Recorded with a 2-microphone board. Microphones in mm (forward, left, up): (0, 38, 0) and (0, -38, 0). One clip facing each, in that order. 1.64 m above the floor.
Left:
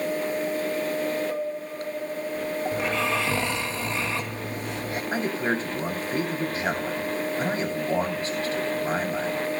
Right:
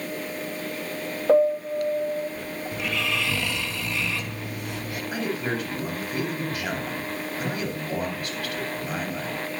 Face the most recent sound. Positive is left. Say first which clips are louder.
# left 2 dB
turn(degrees=30)  # may be behind; listen again after turning